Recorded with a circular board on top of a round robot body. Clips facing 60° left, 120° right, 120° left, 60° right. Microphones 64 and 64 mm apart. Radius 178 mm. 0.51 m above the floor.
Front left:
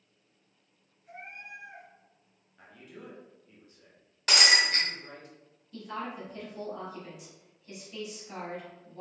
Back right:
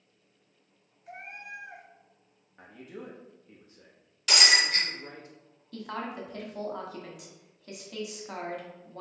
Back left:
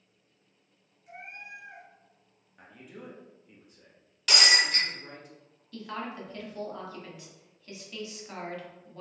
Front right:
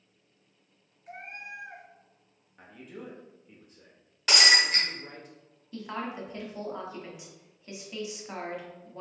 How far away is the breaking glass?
About 1.5 m.